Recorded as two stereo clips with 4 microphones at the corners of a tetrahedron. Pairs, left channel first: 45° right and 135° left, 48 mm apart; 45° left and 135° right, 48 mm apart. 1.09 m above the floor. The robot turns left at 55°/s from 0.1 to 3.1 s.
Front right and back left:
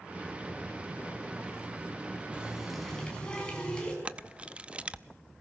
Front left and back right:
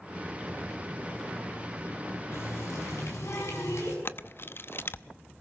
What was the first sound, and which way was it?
A running tap, 70° left.